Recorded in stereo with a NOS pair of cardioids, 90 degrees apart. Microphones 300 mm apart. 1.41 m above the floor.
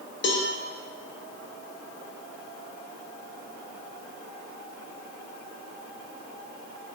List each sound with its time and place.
0.2 s a cowbell: 40° left, 0.6 m